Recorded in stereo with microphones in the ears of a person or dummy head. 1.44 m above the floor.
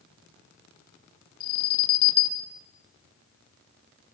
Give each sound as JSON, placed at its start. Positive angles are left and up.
{"t": 1.4, "sound": "an alarm", "side_deg": 30, "distance_m": 2.0}